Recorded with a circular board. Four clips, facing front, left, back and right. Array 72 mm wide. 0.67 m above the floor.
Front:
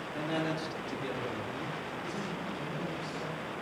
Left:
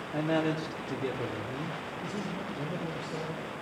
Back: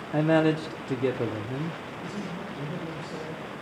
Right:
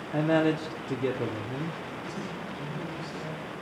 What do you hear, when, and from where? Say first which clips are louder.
0.1 s a man speaking: right 5 dB, back 12 dB; 165° right, 1.0 m
2.0 s a man speaking: even, back 2 dB; 120° left, 4 m